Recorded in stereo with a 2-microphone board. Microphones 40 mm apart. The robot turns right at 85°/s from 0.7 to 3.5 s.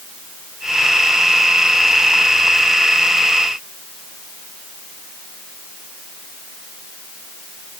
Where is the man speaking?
No man speaking in this recording.